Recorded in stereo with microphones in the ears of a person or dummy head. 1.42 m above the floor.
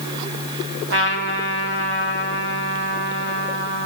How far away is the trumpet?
About 1.3 m.